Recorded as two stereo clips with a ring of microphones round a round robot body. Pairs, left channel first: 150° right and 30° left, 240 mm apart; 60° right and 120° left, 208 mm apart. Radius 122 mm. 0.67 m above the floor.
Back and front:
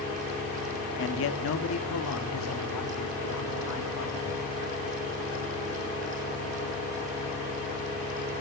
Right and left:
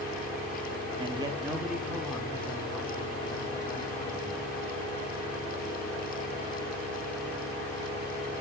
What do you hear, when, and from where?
1.0 s a man speaking: straight behind, 1.1 m; by 4.4 s 130° right, 3 m